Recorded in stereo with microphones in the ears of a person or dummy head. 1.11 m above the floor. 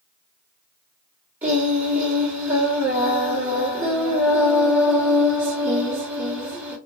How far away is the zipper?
I don't hear a zipper.